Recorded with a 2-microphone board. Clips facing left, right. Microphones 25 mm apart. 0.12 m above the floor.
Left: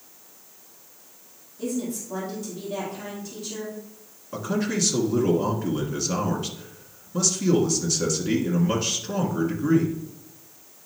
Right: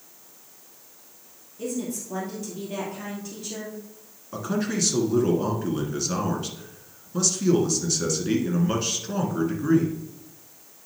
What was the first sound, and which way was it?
A woman speaking, 30° right (ahead or behind).